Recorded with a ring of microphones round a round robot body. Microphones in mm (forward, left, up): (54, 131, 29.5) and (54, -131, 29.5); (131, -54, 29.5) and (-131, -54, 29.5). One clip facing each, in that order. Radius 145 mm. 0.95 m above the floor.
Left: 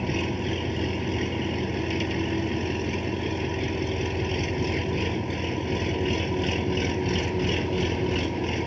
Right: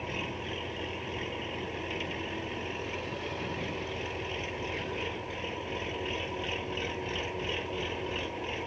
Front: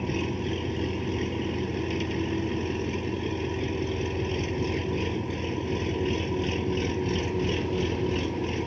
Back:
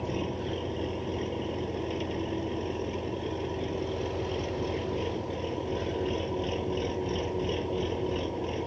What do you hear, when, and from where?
0.0 s an engine running: 60° left